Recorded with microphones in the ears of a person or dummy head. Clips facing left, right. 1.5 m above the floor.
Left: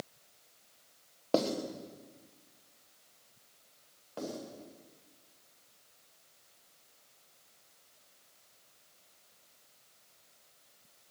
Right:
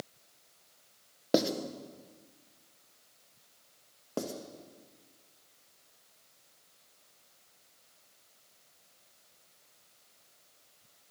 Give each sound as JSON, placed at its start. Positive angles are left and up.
{"t": 1.3, "sound": "writing", "side_deg": -20, "distance_m": 1.3}
{"t": 4.2, "sound": "writing", "side_deg": -55, "distance_m": 2.0}